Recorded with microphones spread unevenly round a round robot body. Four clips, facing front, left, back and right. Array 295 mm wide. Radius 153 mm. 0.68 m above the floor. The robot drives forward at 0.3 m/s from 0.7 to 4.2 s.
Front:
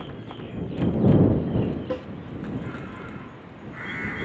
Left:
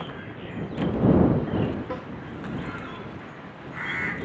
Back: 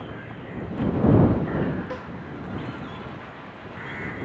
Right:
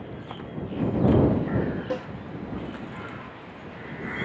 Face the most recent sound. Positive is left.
turn(degrees=-90)